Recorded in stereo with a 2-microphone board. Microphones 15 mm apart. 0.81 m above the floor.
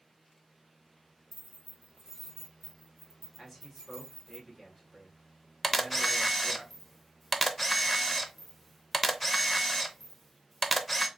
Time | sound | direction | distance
1.3 | keys jangling | 30° right (ahead or behind) | 1.3 m
3.4 | a man speaking | 5° left (ahead or behind) | 1.8 m
5.6 | a camera shutter | 5° left (ahead or behind) | 0.5 m